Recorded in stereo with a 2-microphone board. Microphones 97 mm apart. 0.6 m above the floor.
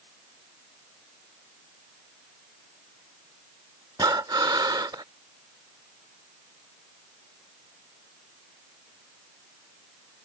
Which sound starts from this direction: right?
Breathing, at 4.0 s.